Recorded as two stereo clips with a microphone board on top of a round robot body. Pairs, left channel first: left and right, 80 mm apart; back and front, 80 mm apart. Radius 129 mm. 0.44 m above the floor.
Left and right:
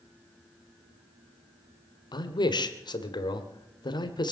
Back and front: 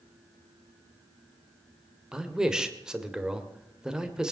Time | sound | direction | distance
2.1 | a man speaking | 80° left | 2 m